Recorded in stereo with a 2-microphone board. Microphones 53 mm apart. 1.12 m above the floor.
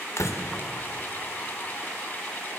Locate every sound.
0.2 s a door slam: 65° left (ahead or behind), 2 m